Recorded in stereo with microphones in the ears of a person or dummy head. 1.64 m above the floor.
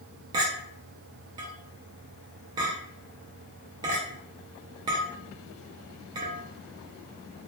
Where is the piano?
No piano in this recording.